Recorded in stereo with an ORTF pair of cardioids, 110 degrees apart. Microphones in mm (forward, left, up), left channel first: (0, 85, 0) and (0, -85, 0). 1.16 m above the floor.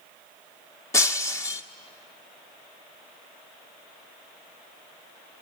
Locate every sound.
0.9 s breaking glass: 20° left, 1.1 m